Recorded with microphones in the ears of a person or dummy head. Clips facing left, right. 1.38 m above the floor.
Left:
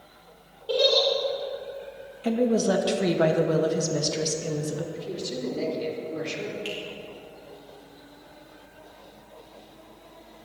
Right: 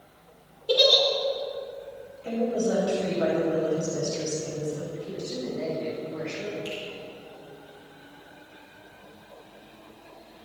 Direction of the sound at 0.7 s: 20° right (ahead or behind).